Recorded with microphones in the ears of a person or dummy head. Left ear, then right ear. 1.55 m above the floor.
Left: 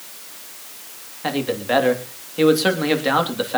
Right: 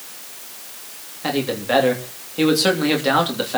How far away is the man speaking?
About 2.5 m.